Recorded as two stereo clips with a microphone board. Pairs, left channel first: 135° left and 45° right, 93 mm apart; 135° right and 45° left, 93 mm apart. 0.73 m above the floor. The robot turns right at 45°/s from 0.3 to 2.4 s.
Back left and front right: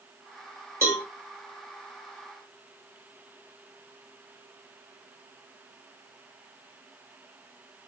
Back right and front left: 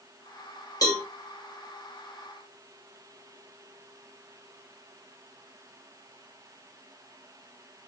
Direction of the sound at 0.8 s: 100° right.